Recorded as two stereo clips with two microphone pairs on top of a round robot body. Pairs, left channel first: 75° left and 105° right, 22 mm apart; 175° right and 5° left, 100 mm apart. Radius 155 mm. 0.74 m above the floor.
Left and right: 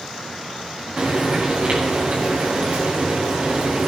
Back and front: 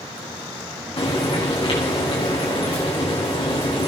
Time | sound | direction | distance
1.0 | frying | 145° right | 6.5 m